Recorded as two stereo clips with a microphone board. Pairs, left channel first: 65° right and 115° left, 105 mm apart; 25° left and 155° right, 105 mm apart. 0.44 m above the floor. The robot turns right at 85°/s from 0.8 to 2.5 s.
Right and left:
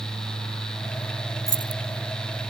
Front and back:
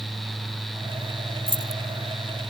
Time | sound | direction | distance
1.5 | keys jangling | 120° right | ?